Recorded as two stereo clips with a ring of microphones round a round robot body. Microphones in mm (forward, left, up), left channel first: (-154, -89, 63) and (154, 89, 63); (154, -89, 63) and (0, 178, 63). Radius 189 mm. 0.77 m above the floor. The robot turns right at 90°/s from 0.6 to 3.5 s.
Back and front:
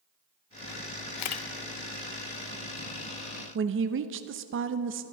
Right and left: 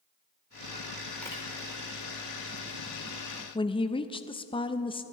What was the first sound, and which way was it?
A camera shutter, 150° right.